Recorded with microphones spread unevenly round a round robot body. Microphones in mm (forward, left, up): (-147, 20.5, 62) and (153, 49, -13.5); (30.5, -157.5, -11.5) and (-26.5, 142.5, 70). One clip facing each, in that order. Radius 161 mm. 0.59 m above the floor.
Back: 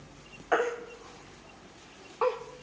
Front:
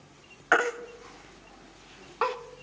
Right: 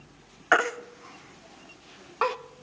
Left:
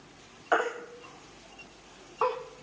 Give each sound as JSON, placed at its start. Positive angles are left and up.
{"t": 0.5, "sound": "a baby crying", "azimuth_deg": -45, "distance_m": 0.6}